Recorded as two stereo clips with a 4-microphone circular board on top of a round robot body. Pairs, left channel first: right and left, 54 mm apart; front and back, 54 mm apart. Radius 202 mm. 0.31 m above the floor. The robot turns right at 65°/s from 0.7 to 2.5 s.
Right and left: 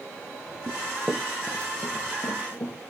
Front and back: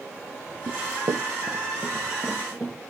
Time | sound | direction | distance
0.7 | running footsteps | 145° left | 0.9 m